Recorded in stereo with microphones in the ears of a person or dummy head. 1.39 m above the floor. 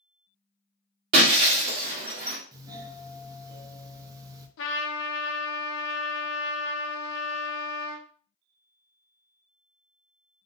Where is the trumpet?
70° left (ahead or behind), 0.7 m.